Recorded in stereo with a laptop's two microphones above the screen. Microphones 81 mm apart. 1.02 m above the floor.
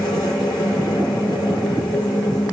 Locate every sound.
0.0 s a machine running: 70° left (ahead or behind), 3.5 m